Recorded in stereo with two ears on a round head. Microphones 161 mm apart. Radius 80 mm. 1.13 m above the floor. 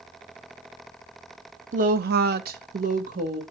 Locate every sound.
1.7 s a woman speaking: 40° right (ahead or behind), 0.9 m